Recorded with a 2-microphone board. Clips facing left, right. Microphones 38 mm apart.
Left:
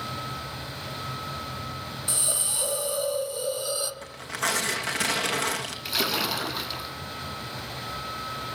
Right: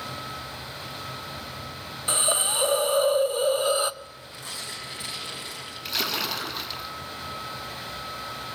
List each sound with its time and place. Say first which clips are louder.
2.1 s a hiss: right 9 dB; 40° right (ahead or behind), 0.9 m
4.0 s tearing paper: left 11 dB; 75° left (ahead or behind), 2.5 m
5.8 s a splash: left 1 dB; 5° left (ahead or behind), 1.7 m